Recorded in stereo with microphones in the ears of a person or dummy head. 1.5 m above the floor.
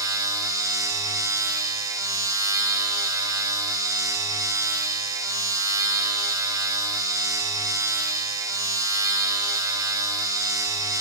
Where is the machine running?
15° right (ahead or behind), 1.4 m.